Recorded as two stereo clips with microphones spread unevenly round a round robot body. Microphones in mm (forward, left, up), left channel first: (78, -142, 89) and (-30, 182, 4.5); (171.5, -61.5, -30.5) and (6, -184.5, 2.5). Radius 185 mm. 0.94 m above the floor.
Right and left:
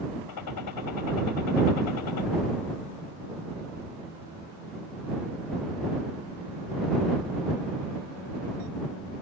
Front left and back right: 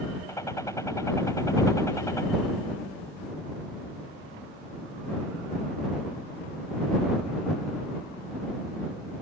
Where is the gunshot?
40° right.